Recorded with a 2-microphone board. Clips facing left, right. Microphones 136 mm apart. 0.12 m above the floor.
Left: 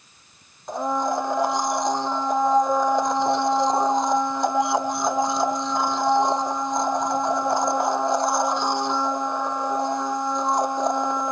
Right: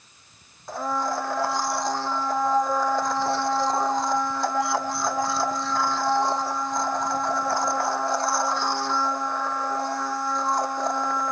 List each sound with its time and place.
0.7 s a blender: 20° left (ahead or behind)